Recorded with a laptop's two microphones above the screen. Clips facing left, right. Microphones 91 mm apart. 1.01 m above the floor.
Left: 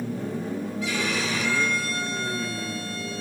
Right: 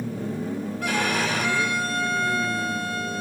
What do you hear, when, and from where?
0.8 s a violin: 60° right (ahead or behind), 3 m